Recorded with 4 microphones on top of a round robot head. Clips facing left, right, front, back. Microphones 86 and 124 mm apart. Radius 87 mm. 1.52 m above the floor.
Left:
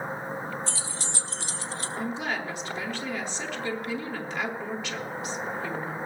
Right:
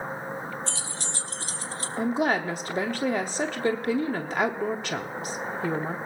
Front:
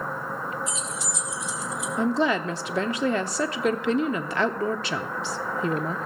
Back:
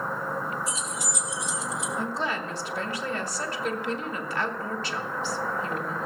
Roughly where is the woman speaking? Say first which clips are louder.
Right 8 dB, front 10 dB; ahead right.